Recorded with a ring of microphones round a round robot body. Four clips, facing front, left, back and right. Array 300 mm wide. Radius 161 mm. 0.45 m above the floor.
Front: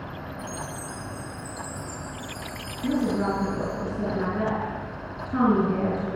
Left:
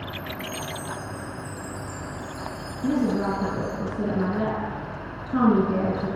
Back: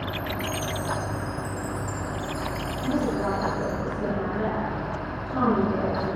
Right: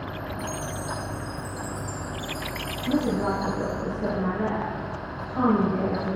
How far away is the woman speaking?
About 6 m.